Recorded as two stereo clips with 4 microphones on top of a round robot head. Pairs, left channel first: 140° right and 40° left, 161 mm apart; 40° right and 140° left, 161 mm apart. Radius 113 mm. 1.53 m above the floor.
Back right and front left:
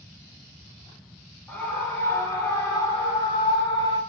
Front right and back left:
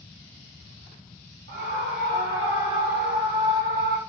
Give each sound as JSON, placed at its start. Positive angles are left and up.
{"t": 1.5, "sound": "a scream", "azimuth_deg": 140, "distance_m": 4.0}